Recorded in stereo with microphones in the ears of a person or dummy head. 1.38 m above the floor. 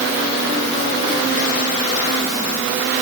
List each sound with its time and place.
Only background noise.